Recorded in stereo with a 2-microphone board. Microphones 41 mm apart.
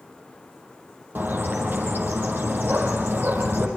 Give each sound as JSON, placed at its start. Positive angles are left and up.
{"t": 1.1, "sound": "a bird", "side_deg": -60, "distance_m": 4.5}